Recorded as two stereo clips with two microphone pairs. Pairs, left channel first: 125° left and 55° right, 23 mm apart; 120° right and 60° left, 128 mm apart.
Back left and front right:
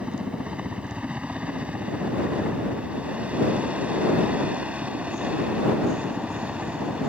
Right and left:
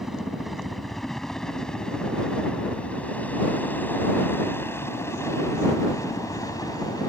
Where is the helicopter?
25° right; by 7.1 s 60° right.